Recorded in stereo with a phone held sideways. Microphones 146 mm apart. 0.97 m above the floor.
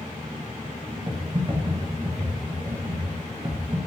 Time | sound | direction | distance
1.1 | typing on a keyboard | 40° right (ahead or behind) | 0.9 m